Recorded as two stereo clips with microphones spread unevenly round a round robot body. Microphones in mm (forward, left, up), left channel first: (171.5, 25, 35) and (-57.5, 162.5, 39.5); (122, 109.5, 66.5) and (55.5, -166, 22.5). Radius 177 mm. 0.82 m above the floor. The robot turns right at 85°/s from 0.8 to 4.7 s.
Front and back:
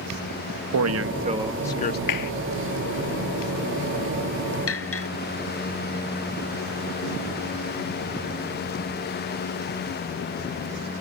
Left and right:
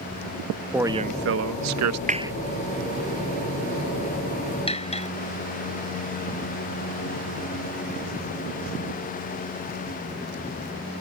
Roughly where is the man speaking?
Behind.